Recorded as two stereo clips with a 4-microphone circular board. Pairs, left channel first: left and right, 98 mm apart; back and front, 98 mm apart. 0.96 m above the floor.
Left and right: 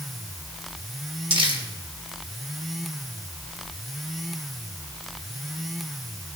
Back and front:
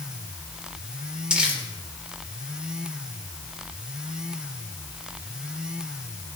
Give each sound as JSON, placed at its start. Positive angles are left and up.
{"t": 1.3, "sound": "crumpling", "azimuth_deg": -80, "distance_m": 3.0}